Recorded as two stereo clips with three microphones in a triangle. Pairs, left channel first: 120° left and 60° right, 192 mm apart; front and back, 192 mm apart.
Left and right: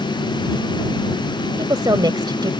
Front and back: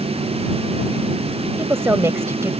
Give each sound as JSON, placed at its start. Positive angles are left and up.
{"t": 1.6, "sound": "a woman speaking", "azimuth_deg": -115}